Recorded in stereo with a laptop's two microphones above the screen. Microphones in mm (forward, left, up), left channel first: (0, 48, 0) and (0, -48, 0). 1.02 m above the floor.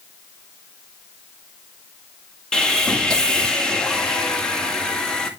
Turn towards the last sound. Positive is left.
turn(degrees=10)  # may be behind; listen again after turning